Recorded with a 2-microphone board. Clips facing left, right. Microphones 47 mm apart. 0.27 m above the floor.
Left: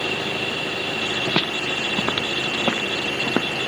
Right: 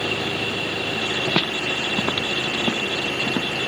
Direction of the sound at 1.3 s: Centre (ahead or behind).